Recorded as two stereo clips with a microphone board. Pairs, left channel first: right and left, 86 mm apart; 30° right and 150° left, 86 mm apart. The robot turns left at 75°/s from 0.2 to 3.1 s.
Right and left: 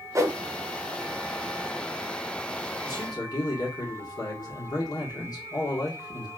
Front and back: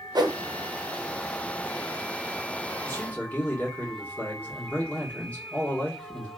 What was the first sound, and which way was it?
A whoosh, 135° left.